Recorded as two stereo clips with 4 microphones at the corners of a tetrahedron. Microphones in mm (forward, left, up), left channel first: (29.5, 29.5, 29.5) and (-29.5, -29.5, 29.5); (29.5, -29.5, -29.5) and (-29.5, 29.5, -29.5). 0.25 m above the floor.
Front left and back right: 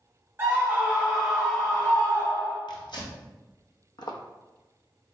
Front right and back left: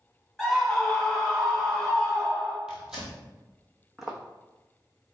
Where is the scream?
130° right, 1.2 m; by 2.6 s 40° left, 1.3 m.